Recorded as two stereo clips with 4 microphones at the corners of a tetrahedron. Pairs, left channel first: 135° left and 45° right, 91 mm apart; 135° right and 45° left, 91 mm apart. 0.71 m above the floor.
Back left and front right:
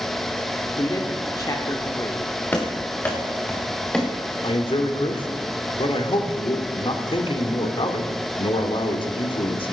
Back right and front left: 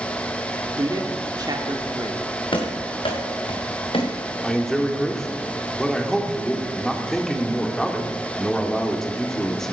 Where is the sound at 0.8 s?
90° left, 1.3 m.